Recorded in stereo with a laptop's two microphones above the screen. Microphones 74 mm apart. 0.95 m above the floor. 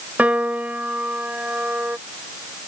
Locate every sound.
0.2 s a piano: 20° right (ahead or behind)